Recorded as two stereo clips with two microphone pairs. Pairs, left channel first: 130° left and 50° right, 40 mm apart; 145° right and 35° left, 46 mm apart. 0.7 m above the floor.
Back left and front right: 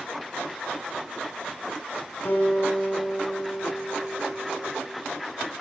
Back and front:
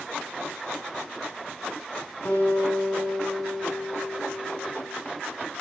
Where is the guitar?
160° left, 7.5 m.